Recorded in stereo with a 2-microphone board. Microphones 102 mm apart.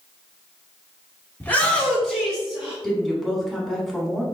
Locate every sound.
1.4 s a shout: 20° left (ahead or behind), 1.2 m; by 2.7 s 15° right (ahead or behind), 1.7 m
2.8 s a woman speaking: centre (ahead or behind), 1.2 m